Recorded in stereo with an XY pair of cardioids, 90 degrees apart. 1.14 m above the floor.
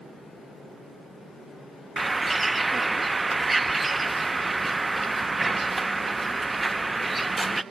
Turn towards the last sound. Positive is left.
turn(degrees=-20)